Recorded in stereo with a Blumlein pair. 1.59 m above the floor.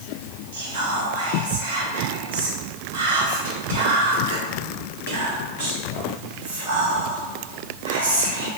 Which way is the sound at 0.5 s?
60° right.